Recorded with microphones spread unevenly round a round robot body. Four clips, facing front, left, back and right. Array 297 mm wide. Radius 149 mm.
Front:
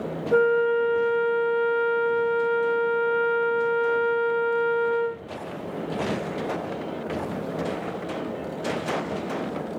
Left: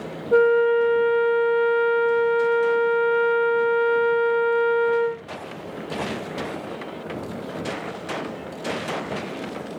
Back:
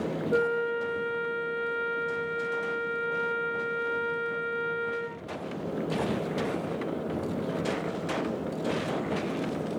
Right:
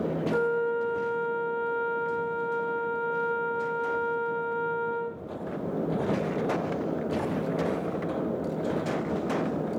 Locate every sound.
0.3 s a flute: 90° left, 0.9 m